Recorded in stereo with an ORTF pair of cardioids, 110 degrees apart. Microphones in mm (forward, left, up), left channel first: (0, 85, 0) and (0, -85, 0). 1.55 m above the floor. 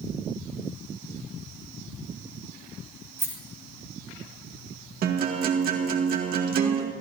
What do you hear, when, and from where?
3.2 s a rattle: 15° right, 4 m
5.0 s a guitar: 60° right, 2 m